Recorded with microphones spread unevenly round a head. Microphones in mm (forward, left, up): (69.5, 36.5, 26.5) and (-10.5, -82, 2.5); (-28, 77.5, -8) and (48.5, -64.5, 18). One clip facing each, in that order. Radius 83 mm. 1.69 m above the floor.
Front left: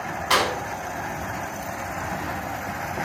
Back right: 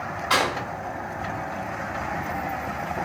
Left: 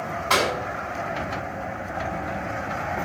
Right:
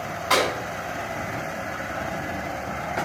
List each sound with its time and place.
0.3 s a clap: 20° left, 7.5 m